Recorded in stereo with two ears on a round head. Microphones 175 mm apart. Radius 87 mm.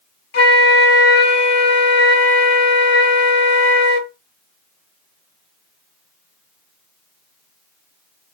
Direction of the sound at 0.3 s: 55° left (ahead or behind).